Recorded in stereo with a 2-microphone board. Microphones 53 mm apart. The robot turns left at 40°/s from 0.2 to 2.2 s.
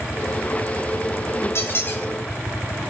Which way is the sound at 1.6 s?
50° left (ahead or behind).